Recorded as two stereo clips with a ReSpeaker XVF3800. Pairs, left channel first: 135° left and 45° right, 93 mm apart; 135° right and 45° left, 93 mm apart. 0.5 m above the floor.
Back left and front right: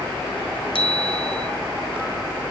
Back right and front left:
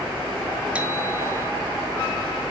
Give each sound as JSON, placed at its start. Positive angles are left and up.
{"t": 0.8, "sound": "a bicycle bell", "azimuth_deg": 120, "distance_m": 3.0}